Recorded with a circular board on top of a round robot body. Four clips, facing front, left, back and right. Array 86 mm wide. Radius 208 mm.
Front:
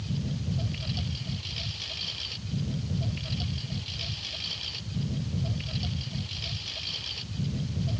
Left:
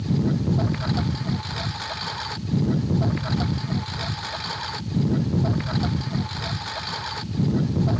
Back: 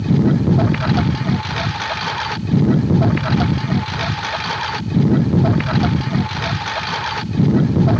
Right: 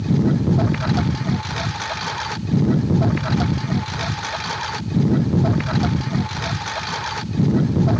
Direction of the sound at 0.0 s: 165° right.